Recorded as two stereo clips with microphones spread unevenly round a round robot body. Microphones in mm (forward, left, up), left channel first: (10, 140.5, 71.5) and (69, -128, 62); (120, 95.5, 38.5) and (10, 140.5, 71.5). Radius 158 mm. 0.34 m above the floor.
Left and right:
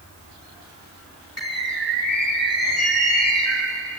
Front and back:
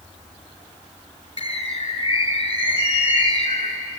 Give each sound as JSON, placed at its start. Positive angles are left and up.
{"t": 1.4, "sound": "a bird", "azimuth_deg": 15, "distance_m": 4.0}